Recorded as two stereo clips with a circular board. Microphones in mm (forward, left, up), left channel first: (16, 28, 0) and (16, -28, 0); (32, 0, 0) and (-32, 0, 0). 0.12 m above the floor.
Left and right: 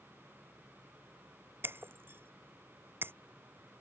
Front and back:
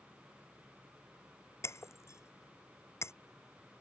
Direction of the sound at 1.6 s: 40° right.